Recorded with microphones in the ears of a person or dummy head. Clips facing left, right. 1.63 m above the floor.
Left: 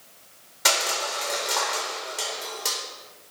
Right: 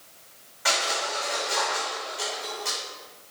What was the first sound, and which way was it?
Crushing, 60° left (ahead or behind).